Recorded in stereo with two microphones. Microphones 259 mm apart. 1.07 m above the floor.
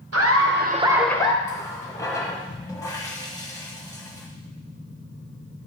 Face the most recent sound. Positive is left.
turn(degrees=10)  # may be behind; listen again after turning